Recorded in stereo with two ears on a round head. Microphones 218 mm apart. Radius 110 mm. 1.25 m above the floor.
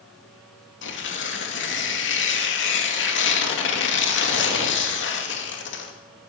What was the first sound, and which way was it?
Tearing paper, 50° left (ahead or behind).